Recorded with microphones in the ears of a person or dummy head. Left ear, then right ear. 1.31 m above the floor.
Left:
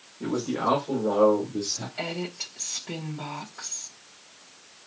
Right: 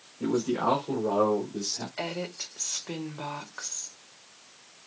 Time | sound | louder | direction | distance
0.2 | a man speaking | even | 75° right (ahead or behind) | 4.5 m
2.0 | a woman speaking | left 1 dB | 50° right (ahead or behind) | 1.8 m